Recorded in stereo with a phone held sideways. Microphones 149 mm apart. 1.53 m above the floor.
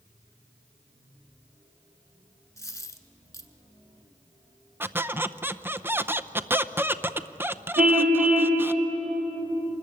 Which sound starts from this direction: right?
A car horn, at 7.8 s.